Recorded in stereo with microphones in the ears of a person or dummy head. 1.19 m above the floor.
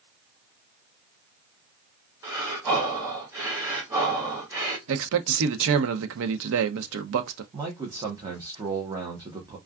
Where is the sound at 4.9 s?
75° right (ahead or behind), 0.6 m.